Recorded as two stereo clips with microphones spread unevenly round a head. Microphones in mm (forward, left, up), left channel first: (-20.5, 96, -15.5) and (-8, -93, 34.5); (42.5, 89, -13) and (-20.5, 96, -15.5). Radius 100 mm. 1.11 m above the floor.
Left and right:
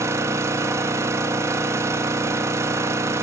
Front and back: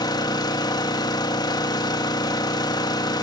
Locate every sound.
0.0 s an engine running: 5° right, 1.6 m